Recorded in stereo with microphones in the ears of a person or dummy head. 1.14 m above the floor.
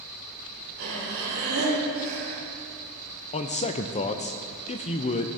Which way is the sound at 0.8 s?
55° right (ahead or behind).